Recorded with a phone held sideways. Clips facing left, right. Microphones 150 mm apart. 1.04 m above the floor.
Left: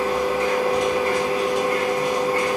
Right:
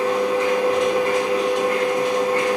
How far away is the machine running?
About 1.0 m.